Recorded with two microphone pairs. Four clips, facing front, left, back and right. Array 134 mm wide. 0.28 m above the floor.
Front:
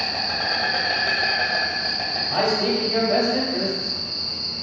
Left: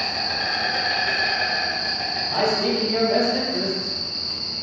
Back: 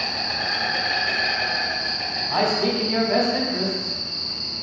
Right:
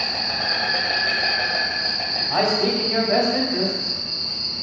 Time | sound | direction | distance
0.0 | an insect | 25° right | 1.5 m
2.3 | a man speaking | 50° right | 1.3 m